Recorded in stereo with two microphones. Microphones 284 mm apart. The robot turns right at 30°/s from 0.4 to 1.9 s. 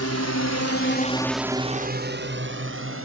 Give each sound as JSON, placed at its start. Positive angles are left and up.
{"t": 0.0, "sound": "a drone", "side_deg": 60}